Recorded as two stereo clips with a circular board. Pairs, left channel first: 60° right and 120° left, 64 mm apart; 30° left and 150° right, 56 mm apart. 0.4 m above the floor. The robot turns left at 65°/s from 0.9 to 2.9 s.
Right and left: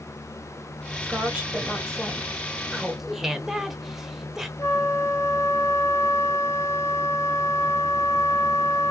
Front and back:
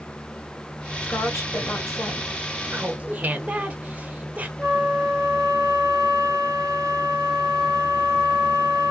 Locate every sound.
1.0 s a woman speaking: 80° left, 2.0 m; by 2.3 s straight ahead, 2.0 m
2.7 s laughter: 150° right, 0.8 m; by 4.5 s 160° right, 0.8 m
4.6 s a flute: 45° right, 2.5 m